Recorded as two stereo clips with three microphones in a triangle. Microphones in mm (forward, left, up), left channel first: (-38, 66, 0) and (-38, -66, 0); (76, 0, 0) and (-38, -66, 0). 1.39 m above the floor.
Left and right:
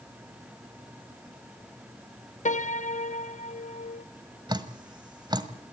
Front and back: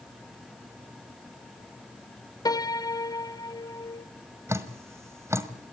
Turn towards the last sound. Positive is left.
turn(degrees=-100)